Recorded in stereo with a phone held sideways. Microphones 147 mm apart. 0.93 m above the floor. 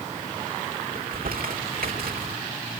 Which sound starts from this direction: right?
Crumpling, at 0.9 s.